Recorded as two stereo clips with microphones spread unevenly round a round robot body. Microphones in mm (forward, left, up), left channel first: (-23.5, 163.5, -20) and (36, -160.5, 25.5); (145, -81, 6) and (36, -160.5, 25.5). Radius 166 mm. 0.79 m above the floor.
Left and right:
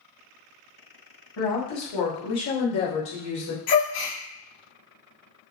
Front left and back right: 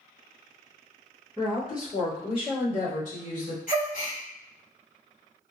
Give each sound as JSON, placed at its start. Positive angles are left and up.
{"t": 1.4, "sound": "a woman speaking", "azimuth_deg": 110, "distance_m": 1.6}
{"t": 3.7, "sound": "a gasp", "azimuth_deg": 85, "distance_m": 1.3}